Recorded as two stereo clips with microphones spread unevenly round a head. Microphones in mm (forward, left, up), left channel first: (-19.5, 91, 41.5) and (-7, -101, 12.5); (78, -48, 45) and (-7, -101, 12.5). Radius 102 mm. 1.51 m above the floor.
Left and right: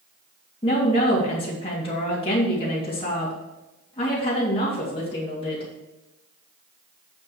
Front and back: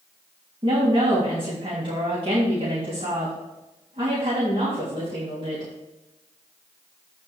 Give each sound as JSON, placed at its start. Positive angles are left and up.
{"t": 0.6, "sound": "a woman speaking", "azimuth_deg": 155, "distance_m": 3.0}